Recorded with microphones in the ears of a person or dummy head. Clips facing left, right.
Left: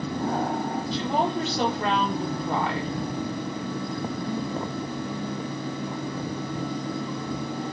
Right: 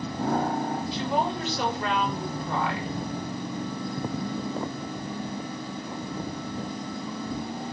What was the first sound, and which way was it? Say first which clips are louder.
A woman speaking: left 3 dB; 25° left (ahead or behind).